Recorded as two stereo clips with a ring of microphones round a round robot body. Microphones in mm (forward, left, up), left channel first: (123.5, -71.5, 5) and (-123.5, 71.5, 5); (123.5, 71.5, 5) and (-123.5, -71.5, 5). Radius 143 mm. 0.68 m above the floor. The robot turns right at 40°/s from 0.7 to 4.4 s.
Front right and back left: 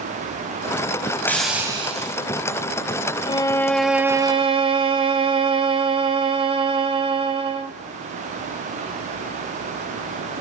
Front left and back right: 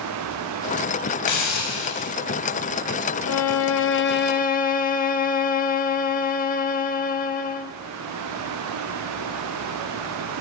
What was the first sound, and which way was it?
A hiss, 55° left.